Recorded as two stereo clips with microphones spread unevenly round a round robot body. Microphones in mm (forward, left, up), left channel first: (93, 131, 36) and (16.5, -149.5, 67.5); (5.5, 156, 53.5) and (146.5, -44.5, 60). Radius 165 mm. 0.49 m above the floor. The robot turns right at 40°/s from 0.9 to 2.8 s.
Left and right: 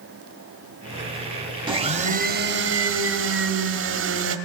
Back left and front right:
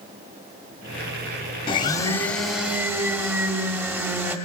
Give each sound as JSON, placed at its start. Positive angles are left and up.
{"t": 1.7, "sound": "a blender", "azimuth_deg": 180, "distance_m": 1.3}